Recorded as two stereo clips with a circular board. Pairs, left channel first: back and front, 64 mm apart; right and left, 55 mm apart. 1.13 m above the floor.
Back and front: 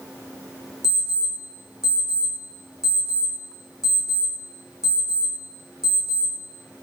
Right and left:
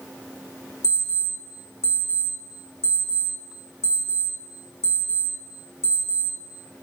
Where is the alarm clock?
85° left, 1.9 m.